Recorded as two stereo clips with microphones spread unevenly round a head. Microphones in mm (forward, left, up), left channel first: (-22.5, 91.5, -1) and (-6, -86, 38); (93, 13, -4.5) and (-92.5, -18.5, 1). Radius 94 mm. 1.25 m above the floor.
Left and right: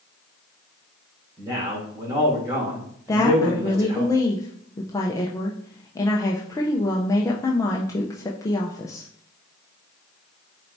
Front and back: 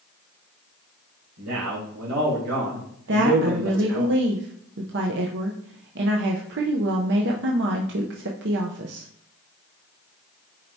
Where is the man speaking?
155° right, 3 m.